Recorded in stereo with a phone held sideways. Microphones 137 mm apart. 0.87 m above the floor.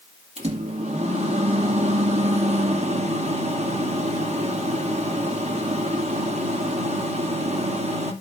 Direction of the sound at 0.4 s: 50° right (ahead or behind).